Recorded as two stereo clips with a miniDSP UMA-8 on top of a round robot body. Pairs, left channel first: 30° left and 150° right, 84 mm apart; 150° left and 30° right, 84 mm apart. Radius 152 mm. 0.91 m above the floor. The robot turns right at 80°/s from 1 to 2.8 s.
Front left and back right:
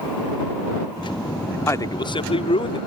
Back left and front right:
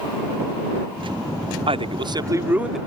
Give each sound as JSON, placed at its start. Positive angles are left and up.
{"t": 1.7, "sound": "a man speaking", "azimuth_deg": -35}